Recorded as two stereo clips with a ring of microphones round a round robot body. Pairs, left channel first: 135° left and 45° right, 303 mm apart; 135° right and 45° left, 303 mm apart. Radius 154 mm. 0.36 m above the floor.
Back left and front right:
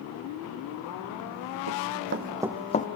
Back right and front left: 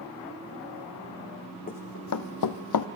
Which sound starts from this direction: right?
Running footsteps, at 1.7 s.